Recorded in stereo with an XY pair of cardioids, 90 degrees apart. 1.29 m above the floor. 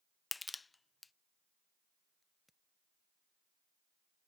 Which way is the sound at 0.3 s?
25° left.